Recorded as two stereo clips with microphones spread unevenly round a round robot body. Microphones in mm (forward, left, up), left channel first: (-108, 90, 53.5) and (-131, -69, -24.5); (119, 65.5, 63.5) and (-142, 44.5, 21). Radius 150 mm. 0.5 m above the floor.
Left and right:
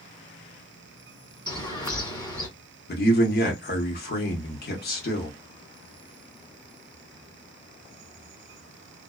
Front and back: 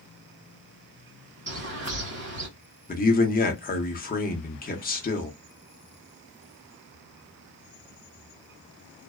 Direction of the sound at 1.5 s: 165° left.